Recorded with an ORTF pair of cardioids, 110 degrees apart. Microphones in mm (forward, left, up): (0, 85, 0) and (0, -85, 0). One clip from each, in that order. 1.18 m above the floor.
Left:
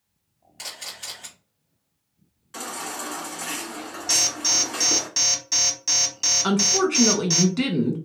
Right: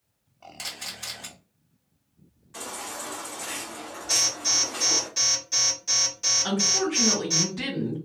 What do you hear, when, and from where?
0.6 s a camera shutter: 15° right, 1.4 m
2.5 s a baby crying: 40° left, 1.6 m
4.1 s an alarm: 45° left, 1.2 m
6.4 s a woman speaking: 45° left, 1.3 m